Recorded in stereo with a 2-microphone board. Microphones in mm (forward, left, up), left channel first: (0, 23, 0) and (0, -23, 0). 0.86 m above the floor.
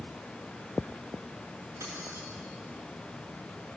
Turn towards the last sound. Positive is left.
turn(degrees=-80)